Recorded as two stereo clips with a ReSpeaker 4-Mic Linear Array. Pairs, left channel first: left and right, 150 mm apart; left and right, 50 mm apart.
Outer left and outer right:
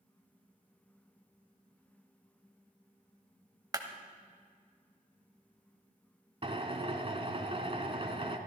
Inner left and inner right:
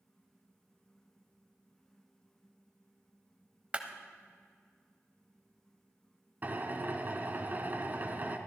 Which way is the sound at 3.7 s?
25° right (ahead or behind).